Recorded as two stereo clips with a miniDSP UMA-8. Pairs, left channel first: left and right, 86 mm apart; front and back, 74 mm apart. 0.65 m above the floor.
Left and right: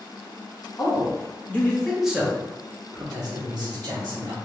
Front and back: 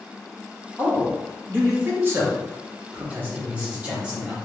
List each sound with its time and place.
0.8 s a man speaking: 115° left, 0.9 m; by 4.3 s 105° right, 1.5 m